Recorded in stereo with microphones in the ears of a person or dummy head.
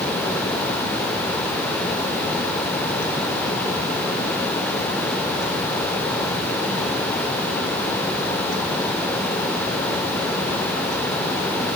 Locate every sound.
Only background noise.